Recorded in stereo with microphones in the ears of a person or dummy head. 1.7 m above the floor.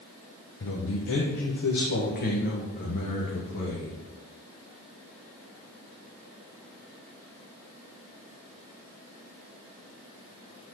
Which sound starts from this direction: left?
A man speaking, at 0.6 s.